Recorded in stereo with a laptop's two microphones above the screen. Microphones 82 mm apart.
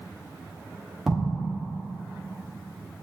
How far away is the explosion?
About 0.5 m.